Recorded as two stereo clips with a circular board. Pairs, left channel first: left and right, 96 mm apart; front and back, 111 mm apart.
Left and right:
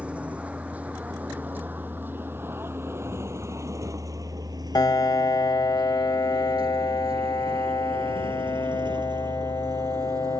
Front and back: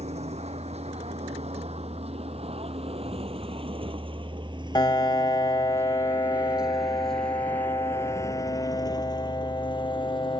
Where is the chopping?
I don't hear chopping.